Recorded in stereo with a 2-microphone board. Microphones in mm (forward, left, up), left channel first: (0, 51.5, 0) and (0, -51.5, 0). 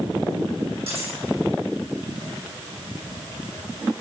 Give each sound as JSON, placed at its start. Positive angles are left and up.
{"t": 0.9, "sound": "cutlery clinking", "side_deg": -70, "distance_m": 8.5}